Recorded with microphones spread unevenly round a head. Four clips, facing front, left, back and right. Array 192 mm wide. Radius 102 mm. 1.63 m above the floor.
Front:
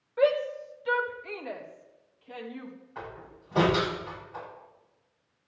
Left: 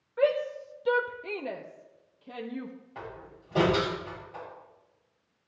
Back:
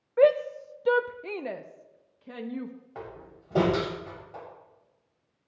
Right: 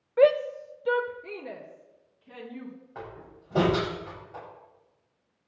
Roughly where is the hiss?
I don't hear a hiss.